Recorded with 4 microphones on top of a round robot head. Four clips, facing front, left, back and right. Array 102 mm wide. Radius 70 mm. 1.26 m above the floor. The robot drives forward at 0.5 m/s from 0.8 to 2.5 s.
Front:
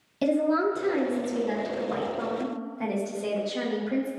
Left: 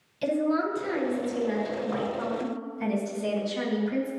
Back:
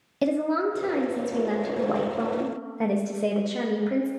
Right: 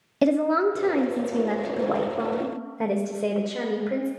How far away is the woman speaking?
About 1.0 m.